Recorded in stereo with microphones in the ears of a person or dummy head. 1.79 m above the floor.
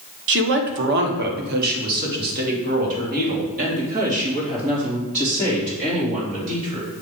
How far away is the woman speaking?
About 1.0 m.